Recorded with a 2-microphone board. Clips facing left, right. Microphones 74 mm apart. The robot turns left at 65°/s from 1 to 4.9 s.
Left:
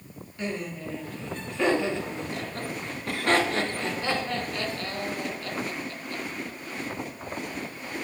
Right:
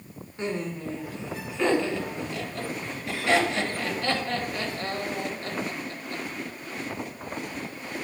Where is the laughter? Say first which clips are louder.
Right 2 dB; 30° right (ahead or behind), 2.5 m.